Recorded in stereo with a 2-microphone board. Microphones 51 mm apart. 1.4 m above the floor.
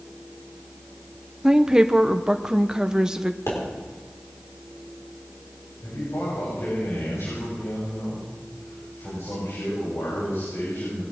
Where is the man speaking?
75° left (ahead or behind), 7 m.